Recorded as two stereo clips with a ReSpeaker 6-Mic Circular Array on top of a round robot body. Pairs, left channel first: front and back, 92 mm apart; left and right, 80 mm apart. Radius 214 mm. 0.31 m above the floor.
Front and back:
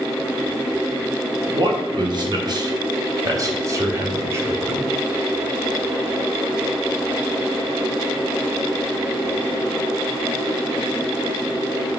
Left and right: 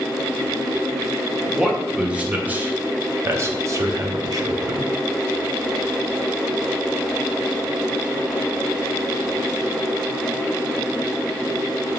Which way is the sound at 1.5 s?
175° right.